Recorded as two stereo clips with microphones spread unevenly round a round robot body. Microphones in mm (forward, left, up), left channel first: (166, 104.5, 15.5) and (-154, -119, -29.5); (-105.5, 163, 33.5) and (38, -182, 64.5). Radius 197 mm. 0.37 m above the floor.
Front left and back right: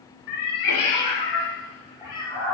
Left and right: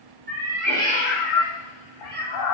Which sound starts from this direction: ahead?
A cat meowing, at 0.3 s.